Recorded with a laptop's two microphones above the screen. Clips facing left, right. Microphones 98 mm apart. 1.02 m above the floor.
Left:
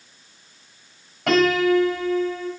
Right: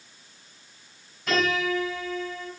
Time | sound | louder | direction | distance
1.3 | a piano | left 8 dB | 85° left | 7.5 m